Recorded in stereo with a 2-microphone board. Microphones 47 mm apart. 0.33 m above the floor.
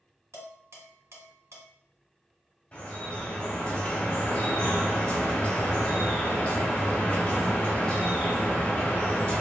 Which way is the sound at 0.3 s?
70° right (ahead or behind).